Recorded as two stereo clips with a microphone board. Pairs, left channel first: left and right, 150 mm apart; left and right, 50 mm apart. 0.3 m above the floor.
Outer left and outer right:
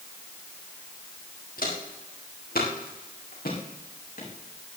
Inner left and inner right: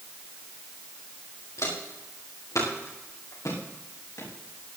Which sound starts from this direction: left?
Footsteps, at 1.6 s.